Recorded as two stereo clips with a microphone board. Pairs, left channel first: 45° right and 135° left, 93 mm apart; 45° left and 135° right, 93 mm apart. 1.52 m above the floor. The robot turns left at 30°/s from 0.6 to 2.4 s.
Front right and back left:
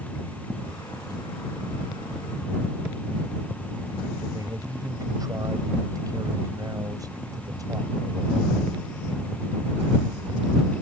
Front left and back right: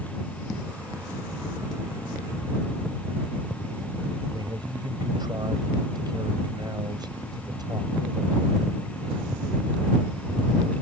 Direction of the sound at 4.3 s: 175° right.